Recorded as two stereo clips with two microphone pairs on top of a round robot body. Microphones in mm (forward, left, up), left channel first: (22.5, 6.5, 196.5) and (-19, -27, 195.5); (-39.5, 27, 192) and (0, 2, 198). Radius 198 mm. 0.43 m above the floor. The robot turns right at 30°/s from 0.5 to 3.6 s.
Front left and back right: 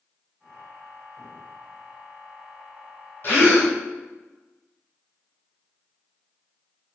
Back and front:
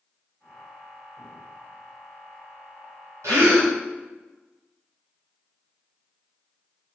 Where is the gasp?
10° right, 0.8 m; by 3.7 s straight ahead, 0.8 m.